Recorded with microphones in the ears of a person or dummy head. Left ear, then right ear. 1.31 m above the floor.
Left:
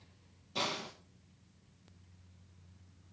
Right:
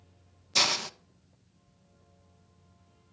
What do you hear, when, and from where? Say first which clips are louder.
0.6 s a hiss: right 11 dB; 70° right (ahead or behind), 1.0 m